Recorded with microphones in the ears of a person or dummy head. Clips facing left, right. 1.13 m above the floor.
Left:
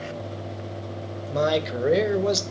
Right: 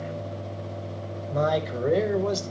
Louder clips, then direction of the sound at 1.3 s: Left 2 dB; 40° left (ahead or behind).